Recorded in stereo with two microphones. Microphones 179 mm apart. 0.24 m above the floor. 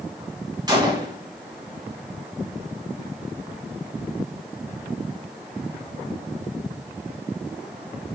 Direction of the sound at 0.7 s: 25° right (ahead or behind).